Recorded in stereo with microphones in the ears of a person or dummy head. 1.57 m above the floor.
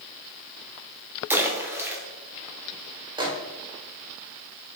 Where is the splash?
10° right (ahead or behind), 0.9 m.